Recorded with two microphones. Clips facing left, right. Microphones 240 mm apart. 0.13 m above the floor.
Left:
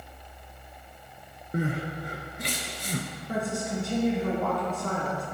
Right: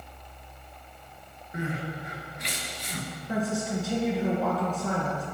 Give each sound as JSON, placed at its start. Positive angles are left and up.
{"t": 1.5, "sound": "crying", "side_deg": 50, "distance_m": 1.3}
{"t": 3.3, "sound": "a woman speaking", "side_deg": -5, "distance_m": 1.9}